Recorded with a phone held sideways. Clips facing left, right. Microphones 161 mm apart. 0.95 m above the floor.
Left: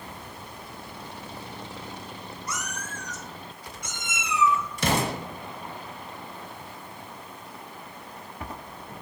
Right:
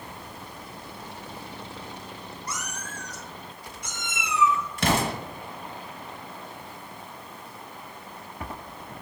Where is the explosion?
60° right (ahead or behind), 1.5 m.